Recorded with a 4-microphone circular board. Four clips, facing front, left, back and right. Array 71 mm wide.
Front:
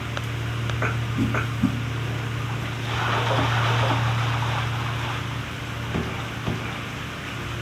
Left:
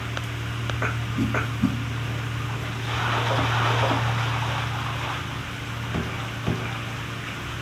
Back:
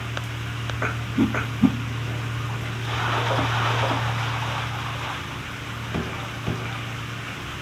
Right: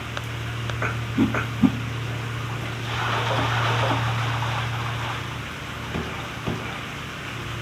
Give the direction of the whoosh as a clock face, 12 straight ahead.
4 o'clock.